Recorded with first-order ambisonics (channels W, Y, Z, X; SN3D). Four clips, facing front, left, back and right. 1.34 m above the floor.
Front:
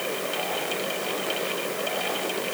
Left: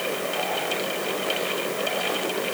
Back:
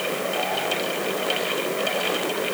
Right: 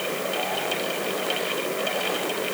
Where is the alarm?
I don't hear an alarm.